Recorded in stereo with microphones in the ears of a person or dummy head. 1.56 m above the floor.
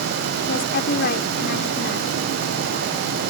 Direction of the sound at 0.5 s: 50° left (ahead or behind).